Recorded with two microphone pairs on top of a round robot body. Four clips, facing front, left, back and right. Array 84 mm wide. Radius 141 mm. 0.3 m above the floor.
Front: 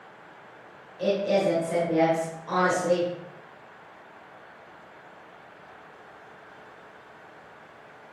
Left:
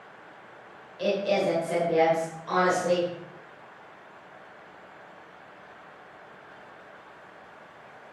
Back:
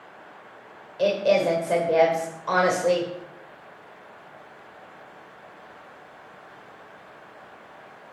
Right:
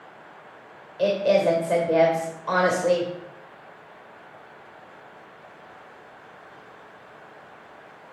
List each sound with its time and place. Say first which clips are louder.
1.0 s a woman speaking: right 5 dB, back 3 dB; 140° right, 2.0 m